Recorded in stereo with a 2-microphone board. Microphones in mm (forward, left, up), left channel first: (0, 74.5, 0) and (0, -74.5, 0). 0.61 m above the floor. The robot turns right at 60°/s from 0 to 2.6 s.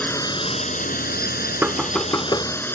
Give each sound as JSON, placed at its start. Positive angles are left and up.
{"t": 0.0, "sound": "a drone", "azimuth_deg": 10}
{"t": 1.6, "sound": "knocking", "azimuth_deg": -15}